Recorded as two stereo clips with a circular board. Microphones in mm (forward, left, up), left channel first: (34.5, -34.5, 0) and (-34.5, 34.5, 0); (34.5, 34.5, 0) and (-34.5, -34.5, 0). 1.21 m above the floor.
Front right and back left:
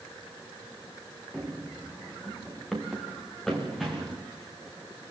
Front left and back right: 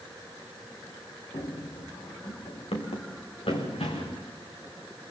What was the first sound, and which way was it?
Running footsteps, 45° left.